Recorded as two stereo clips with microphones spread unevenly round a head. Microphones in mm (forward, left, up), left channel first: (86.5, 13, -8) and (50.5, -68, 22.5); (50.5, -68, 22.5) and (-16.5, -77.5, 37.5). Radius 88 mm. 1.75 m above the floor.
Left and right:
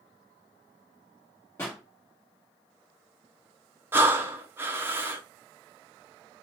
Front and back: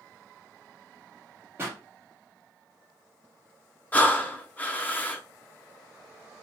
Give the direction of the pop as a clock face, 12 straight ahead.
7 o'clock.